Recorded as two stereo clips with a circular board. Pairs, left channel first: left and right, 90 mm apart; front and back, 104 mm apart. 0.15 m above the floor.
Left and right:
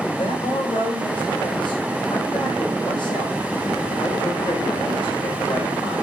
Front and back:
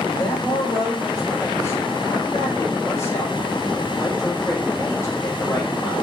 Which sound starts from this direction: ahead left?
A man speaking, at 0.1 s.